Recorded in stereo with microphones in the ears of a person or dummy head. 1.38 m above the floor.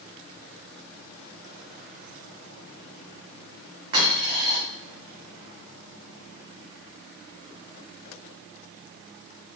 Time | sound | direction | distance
3.9 | a dropped coin | 30° right (ahead or behind) | 2 m